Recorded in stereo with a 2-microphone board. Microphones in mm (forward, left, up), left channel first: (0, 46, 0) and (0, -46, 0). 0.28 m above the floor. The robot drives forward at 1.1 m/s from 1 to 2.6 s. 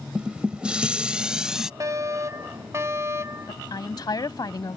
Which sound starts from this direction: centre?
Dishes clattering, at 0.1 s.